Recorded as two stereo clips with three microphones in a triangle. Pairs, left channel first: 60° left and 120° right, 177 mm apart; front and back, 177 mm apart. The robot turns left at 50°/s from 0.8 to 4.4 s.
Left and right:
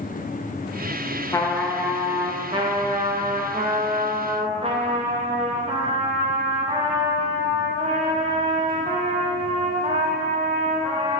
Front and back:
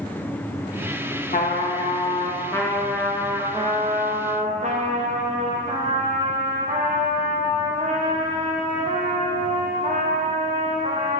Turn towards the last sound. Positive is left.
turn(degrees=-160)